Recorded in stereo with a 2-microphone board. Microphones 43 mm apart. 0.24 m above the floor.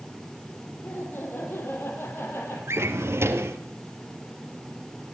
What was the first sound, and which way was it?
Laughter, 55° left (ahead or behind).